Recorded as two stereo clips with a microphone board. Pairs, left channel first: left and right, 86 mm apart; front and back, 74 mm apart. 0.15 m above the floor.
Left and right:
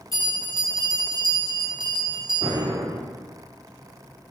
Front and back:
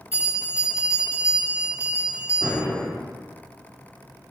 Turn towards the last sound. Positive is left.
turn(degrees=-60)